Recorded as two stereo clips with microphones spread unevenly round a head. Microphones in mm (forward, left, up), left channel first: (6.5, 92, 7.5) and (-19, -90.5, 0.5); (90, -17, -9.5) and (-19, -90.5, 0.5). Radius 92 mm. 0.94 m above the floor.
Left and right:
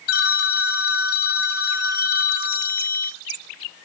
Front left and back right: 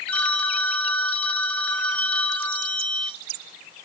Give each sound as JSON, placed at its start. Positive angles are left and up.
{"t": 0.1, "sound": "a phone ringing", "azimuth_deg": 120, "distance_m": 0.5}